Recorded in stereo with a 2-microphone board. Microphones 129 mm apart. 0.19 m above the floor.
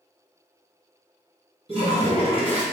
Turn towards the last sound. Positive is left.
turn(degrees=-45)  # may be behind; listen again after turning